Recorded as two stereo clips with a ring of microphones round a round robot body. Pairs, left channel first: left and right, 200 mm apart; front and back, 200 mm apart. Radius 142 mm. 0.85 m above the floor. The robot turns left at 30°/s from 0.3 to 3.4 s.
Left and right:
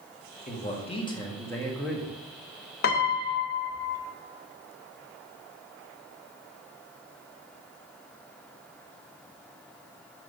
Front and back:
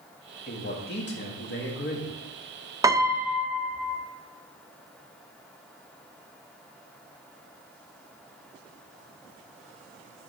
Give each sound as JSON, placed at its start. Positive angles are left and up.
{"t": 0.5, "sound": "a man speaking", "azimuth_deg": 45, "distance_m": 1.8}
{"t": 2.8, "sound": "a piano", "azimuth_deg": 110, "distance_m": 0.5}